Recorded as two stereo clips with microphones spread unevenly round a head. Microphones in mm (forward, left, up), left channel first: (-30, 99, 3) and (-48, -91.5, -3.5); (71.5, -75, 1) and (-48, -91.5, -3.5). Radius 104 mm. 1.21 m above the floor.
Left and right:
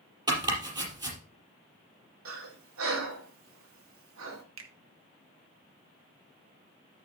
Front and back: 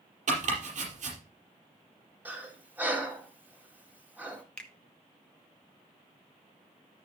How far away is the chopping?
About 4.5 m.